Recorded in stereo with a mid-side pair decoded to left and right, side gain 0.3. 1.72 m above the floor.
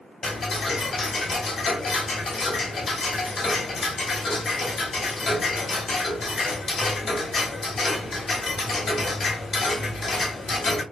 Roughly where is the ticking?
Ahead left.